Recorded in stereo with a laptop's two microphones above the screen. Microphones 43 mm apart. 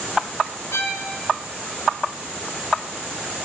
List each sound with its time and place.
0.7 s a violin: 80° left, 3.5 m